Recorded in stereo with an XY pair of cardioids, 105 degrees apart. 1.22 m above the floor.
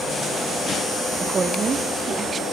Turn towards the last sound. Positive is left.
turn(degrees=-40)